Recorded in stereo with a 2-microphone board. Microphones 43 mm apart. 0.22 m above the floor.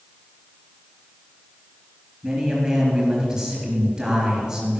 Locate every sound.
2.2 s a man speaking: 20° right (ahead or behind), 4.5 m